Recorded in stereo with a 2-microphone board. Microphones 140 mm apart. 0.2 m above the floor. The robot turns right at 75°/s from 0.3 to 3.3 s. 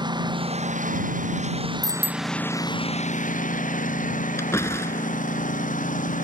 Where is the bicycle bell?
25° left; by 2.3 s 65° left.